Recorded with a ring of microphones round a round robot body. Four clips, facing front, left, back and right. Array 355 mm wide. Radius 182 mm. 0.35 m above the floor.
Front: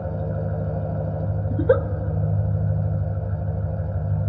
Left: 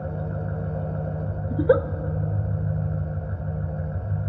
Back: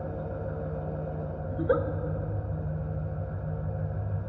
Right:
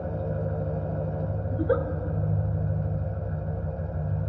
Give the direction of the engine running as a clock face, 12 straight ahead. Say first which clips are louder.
Right 1 dB, front 6 dB; 11 o'clock.